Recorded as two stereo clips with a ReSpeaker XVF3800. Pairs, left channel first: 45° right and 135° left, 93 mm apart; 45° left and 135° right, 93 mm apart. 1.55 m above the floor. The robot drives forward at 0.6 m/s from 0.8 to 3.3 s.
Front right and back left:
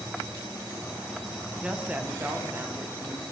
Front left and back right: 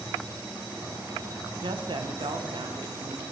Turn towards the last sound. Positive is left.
turn(degrees=-165)